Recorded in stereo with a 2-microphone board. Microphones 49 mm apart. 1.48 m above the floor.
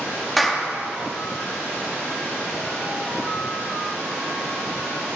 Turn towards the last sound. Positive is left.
turn(degrees=0)  # may be behind; listen again after turning